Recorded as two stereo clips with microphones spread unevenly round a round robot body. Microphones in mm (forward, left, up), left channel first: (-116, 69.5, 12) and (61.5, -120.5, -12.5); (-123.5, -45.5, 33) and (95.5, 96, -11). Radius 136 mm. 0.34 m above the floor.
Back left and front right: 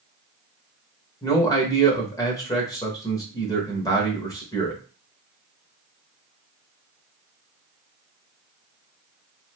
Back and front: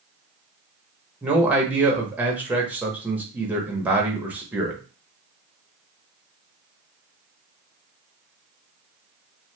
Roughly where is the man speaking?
Ahead left.